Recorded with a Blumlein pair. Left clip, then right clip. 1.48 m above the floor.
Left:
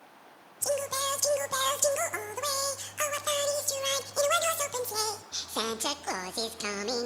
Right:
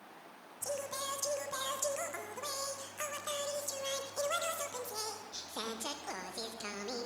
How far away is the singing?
About 1.3 m.